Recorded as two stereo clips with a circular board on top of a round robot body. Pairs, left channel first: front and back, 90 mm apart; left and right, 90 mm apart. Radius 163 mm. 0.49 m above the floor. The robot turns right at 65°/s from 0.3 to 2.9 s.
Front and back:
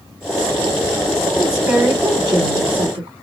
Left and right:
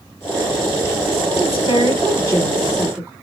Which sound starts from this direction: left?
A woman speaking, at 1.4 s.